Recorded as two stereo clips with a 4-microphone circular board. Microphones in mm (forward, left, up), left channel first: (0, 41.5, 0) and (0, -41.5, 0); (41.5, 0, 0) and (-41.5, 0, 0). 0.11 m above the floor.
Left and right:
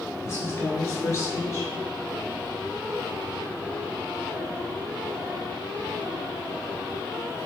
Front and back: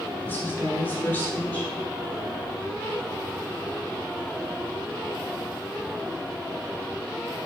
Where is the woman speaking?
55° left, 1.9 m.